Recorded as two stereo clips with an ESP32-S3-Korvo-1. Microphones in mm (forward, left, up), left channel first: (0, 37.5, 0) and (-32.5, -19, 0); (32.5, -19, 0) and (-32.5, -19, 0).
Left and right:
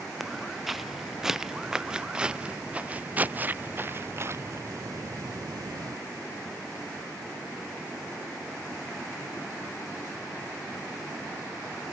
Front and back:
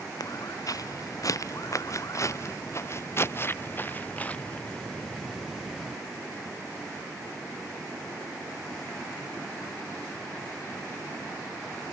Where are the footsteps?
30° right; by 6.0 s 100° right.